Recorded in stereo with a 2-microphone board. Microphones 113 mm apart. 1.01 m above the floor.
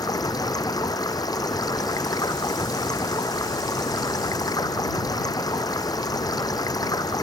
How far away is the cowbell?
No cowbell in this recording.